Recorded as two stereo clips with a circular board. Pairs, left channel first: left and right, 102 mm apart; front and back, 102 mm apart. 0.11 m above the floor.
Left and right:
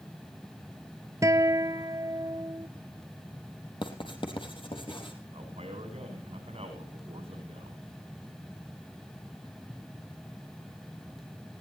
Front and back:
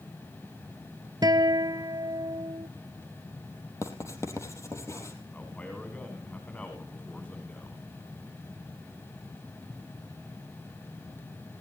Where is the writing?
60° left, 3.5 m.